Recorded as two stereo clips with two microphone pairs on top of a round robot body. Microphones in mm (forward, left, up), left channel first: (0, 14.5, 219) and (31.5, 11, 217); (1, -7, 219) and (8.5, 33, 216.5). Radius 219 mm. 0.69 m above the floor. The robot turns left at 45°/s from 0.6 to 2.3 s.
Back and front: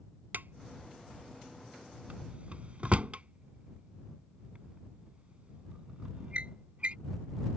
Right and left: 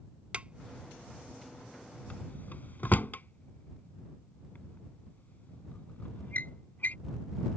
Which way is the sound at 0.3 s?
20° left.